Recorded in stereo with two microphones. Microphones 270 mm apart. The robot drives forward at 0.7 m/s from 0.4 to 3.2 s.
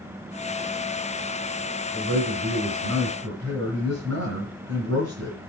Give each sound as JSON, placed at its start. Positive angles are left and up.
{"t": 1.9, "sound": "a man speaking", "side_deg": -50, "distance_m": 3.0}